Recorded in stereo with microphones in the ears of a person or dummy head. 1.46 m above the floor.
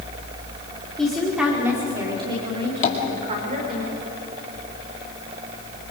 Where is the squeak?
I don't hear a squeak.